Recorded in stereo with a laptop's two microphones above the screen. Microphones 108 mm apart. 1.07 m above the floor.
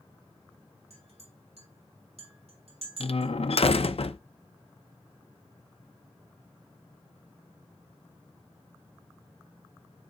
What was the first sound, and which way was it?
A clink, 70° right (ahead or behind).